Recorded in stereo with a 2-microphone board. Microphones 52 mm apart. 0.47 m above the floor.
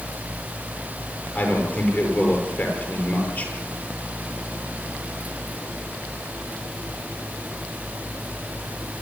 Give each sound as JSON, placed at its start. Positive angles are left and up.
{"t": 1.4, "sound": "a man speaking", "side_deg": 35, "distance_m": 8.5}